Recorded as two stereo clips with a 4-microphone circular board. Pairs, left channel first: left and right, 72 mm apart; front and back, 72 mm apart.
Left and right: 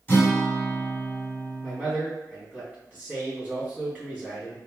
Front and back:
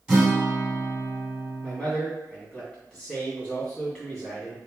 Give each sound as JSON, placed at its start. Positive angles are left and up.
{"t": 0.1, "sound": "a guitar", "azimuth_deg": 115, "distance_m": 1.8}
{"t": 1.6, "sound": "a man speaking", "azimuth_deg": -65, "distance_m": 1.8}